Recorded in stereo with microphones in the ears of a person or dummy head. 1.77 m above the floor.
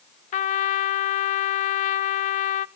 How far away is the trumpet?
About 0.6 m.